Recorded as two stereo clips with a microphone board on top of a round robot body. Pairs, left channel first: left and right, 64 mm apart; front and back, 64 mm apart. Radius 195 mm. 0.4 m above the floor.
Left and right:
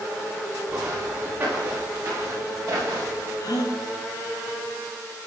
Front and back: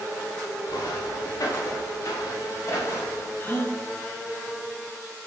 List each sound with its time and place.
0.7 s footsteps: 35° right, 4.5 m; by 3.3 s 55° right, 7 m
3.4 s a gasp: 60° left, 1.1 m